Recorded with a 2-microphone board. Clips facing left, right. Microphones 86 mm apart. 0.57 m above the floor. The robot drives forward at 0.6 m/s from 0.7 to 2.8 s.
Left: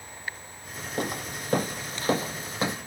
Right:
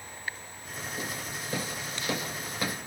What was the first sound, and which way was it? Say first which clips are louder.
Footsteps: left 8 dB; 65° left (ahead or behind).